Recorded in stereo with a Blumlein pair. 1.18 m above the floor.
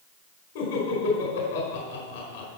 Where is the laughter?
45° left, 4.5 m.